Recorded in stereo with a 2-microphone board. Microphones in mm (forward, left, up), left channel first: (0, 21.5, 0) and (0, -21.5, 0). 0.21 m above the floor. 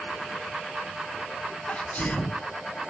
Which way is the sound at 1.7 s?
35° left (ahead or behind).